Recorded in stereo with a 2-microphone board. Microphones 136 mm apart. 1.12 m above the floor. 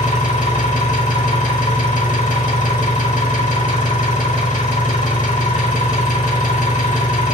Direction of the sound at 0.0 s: 80° left.